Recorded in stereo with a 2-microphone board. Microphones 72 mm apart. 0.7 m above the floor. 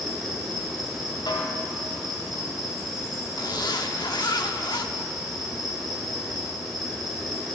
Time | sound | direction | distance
0.0 | an insect | centre (ahead or behind) | 4.5 m
1.3 | a snare drum | 85° left | 2.5 m
3.4 | a zipper | 70° left (ahead or behind) | 1.0 m